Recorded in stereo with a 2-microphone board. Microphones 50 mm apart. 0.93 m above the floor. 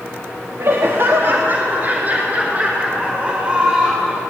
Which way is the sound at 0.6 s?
60° right (ahead or behind).